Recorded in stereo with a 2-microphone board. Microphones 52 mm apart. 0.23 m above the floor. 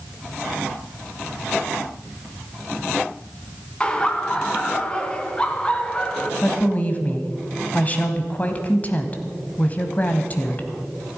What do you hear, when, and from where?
3.8 s laughter: 20° left (ahead or behind), 1.9 m
6.4 s a woman speaking: 30° left (ahead or behind), 1.3 m